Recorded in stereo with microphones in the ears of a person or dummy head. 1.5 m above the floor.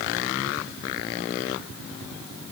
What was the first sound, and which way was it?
Only background noise.